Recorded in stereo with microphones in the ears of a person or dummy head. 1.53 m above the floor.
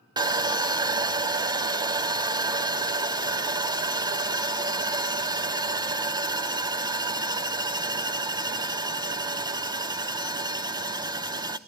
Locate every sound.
0.2 s sawing: 20° right (ahead or behind), 0.9 m